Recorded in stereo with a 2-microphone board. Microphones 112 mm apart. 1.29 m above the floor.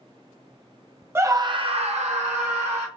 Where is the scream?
20° right (ahead or behind), 0.5 m; by 2.9 s 75° right (ahead or behind), 0.9 m.